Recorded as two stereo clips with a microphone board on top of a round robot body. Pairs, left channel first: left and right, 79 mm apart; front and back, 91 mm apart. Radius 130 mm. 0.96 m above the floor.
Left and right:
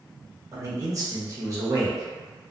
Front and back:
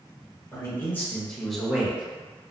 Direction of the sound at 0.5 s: 50° right.